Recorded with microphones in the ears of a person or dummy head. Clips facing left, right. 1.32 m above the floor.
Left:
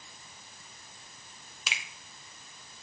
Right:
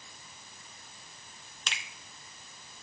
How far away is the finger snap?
About 0.6 m.